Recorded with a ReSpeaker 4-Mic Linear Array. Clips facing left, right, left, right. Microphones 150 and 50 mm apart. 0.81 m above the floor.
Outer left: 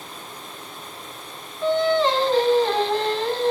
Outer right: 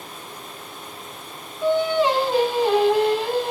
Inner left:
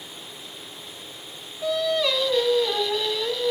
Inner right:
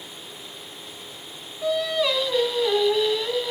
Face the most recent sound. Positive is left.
turn(degrees=-10)  # may be behind; listen again after turning